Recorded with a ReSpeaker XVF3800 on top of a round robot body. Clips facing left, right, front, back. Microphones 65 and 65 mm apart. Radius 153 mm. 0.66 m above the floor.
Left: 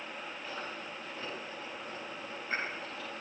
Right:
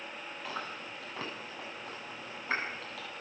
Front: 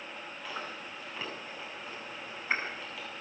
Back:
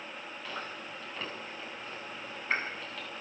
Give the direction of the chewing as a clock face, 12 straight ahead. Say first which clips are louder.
Right 3 dB, even; 3 o'clock.